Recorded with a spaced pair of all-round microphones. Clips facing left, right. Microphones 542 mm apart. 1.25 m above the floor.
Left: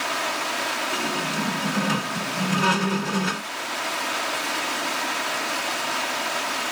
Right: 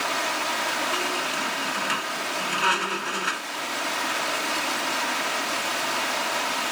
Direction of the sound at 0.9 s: 70° left (ahead or behind).